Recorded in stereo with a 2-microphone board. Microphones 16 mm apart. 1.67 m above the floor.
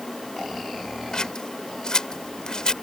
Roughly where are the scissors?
Left.